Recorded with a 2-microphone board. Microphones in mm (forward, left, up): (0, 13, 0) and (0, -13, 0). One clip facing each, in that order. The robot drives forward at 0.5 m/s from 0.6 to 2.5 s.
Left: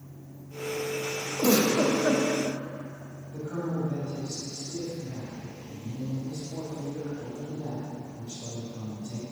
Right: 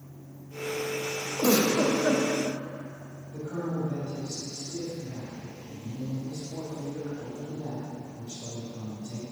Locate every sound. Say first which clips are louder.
1.4 s a giggle: even; 30° right (ahead or behind), 0.8 m
3.3 s a man speaking: even; 35° right (ahead or behind), 1.8 m